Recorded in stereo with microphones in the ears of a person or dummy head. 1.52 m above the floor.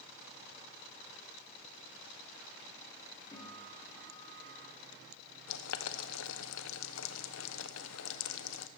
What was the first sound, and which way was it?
A guitar, 5° left (ahead or behind).